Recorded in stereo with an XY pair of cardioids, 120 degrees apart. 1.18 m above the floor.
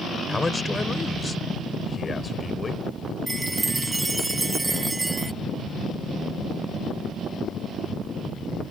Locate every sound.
0.3 s a man speaking: 15° left; by 2.9 s 30° left
3.3 s a chime: 15° right